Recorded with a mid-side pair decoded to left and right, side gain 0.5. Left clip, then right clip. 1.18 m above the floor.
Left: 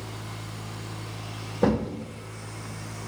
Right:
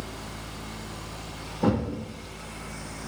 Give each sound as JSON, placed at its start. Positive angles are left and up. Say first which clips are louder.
{"t": 0.0, "sound": "a fan", "louder": "right 1 dB", "azimuth_deg": 45, "distance_m": 2.0}
{"t": 1.6, "sound": "a thud", "louder": "left 2 dB", "azimuth_deg": 55, "distance_m": 2.0}